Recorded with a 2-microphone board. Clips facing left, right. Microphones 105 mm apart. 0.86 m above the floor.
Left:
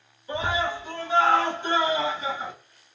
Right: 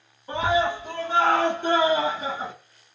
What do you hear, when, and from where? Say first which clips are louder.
0.3 s a scream: right 4 dB; 60° right (ahead or behind), 1.6 m; by 2.5 s 35° right (ahead or behind), 0.7 m